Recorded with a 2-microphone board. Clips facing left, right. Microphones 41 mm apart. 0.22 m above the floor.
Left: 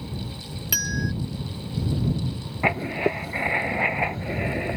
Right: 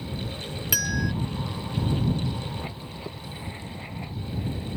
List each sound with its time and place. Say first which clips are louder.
0.7 s a bell: even; centre (ahead or behind)
2.6 s writing: left 14 dB; 70° left (ahead or behind)